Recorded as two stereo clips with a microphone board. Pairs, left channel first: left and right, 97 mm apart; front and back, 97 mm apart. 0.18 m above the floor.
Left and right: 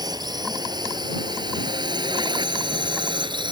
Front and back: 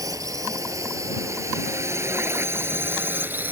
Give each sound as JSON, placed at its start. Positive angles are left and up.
{"t": 0.0, "sound": "a drone", "azimuth_deg": -130}